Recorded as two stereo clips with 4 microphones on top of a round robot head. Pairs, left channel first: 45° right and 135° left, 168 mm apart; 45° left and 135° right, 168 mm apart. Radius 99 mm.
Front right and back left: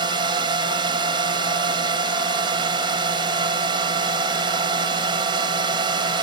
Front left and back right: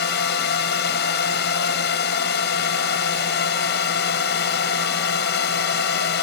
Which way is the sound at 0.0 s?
70° left.